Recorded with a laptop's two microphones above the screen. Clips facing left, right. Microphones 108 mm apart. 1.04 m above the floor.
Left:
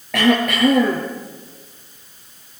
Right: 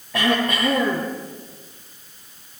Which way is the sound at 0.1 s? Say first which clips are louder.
Left 4 dB; 80° left.